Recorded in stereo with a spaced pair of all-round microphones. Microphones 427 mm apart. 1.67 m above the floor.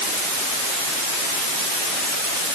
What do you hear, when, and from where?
Only background noise.